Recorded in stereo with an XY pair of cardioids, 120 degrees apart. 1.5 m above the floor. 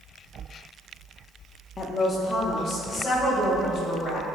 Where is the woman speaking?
35° left, 0.6 m; by 4.2 s 50° left, 3 m.